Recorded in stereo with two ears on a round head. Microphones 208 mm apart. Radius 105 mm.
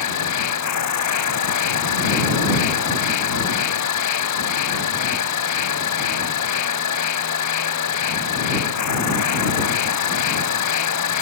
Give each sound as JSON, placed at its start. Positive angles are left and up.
{"t": 0.0, "sound": "an insect", "side_deg": 80}